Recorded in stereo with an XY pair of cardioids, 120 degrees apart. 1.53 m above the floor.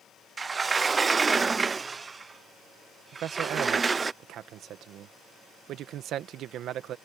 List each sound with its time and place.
0.4 s a sliding door: 30° right
3.1 s a man speaking: 65° right